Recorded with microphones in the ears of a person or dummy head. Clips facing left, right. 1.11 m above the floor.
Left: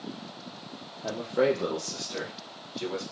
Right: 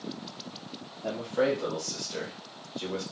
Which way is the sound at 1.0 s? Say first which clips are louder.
Left 2 dB; 5° right (ahead or behind).